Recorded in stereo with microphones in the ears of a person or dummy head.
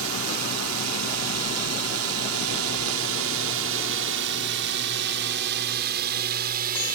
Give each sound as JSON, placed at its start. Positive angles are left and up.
{"t": 0.0, "sound": "a drone", "side_deg": -70}